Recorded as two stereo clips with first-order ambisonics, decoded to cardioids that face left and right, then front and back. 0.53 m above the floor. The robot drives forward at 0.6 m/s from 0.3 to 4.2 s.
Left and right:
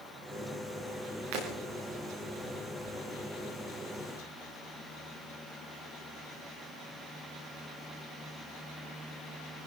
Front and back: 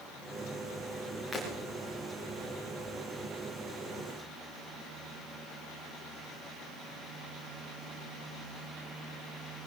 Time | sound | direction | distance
1.3 | breaking glass | 90° right | 9.5 m